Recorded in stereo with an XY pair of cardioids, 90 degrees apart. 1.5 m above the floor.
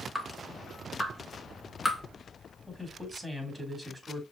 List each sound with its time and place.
0.1 s dripping: straight ahead, 2.5 m
2.7 s a man speaking: 10° right, 3 m